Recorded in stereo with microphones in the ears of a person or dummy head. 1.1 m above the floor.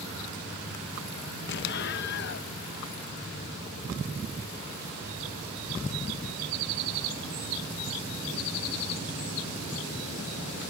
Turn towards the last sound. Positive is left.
turn(degrees=55)  # may be behind; listen again after turning